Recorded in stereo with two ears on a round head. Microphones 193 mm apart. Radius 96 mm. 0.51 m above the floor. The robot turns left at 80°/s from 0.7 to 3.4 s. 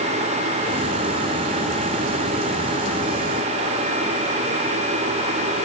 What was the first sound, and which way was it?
Only background noise.